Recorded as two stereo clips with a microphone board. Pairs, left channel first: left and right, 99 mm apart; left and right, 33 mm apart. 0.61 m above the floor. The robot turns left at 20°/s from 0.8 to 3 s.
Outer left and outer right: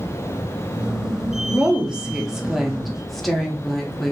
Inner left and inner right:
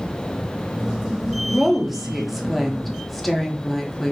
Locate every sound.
1.4 s a woman speaking: 10° right (ahead or behind), 0.6 m; by 4.1 s centre (ahead or behind), 0.6 m